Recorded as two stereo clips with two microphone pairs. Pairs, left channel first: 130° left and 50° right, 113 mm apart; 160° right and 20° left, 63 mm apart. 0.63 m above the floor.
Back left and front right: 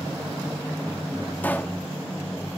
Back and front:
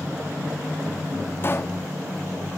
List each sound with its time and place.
1.4 s a pop: 160° right, 0.7 m